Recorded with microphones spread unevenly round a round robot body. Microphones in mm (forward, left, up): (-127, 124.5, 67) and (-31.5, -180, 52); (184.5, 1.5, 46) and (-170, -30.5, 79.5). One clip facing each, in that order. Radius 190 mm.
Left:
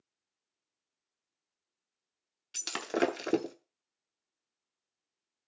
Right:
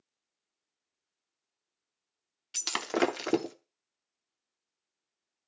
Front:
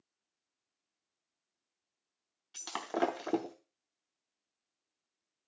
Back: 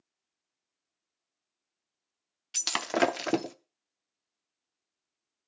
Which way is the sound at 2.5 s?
155° right.